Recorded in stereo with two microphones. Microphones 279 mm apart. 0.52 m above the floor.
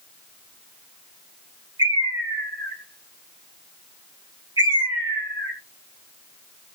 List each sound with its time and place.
1.8 s a bird: 15° right (ahead or behind), 2 m